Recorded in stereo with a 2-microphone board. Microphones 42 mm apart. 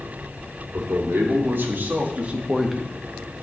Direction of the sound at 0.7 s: 70° right (ahead or behind).